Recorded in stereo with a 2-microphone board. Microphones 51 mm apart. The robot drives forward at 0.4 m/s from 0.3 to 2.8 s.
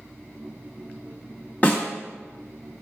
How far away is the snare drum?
About 1.1 m.